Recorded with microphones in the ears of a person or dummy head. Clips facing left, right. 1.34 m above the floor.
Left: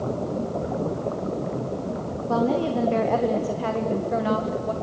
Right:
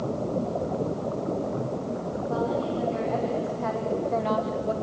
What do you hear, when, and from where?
2.3 s a woman speaking: 80° left, 2 m; by 4.7 s 10° right (ahead or behind), 1.7 m